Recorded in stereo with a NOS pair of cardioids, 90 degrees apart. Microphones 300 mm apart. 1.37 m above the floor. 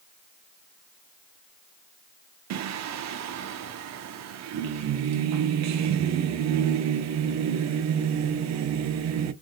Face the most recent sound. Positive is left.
turn(degrees=-65)